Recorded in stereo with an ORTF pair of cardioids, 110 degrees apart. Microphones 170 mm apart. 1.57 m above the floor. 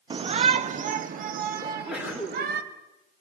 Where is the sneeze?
10° right, 6 m.